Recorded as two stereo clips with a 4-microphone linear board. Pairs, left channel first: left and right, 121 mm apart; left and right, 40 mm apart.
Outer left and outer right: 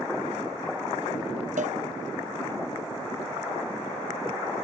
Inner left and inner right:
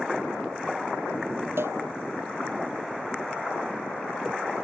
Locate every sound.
1.6 s a cowbell: 80° right